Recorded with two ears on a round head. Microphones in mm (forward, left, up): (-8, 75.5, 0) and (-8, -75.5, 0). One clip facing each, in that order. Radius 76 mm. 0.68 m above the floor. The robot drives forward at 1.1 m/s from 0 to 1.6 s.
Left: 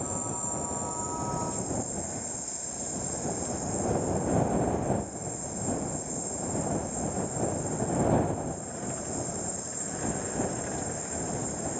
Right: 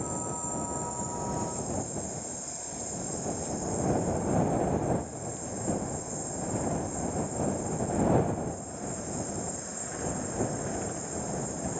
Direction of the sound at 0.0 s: Centre (ahead or behind).